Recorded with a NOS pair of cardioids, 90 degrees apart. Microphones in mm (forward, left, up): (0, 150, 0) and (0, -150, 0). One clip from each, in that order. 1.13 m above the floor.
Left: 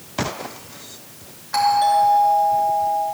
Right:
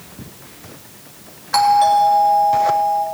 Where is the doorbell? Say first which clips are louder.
Right 4 dB; 40° right, 3 m.